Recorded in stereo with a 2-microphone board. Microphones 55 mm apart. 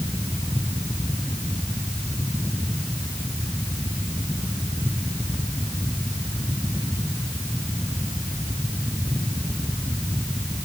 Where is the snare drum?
No snare drum in this recording.